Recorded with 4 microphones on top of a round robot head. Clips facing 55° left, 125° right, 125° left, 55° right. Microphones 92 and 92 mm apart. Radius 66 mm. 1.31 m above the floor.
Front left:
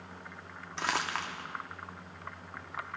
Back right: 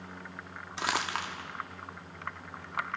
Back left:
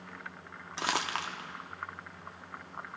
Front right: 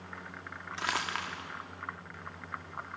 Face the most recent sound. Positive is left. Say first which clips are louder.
# back right 1 dB, back left 2 dB
turn(degrees=165)